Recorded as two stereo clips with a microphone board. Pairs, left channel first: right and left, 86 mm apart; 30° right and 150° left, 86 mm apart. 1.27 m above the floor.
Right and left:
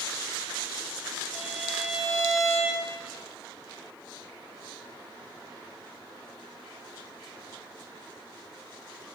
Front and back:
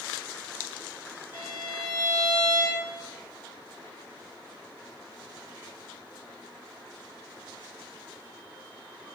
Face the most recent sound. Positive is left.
turn(degrees=10)